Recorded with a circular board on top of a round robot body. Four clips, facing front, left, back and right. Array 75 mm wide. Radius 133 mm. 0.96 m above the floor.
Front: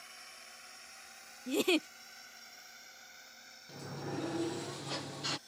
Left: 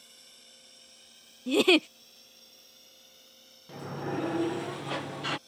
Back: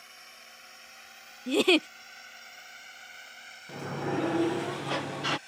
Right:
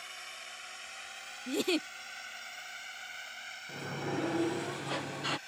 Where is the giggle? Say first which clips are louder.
Left 9 dB, back 7 dB; 125° left.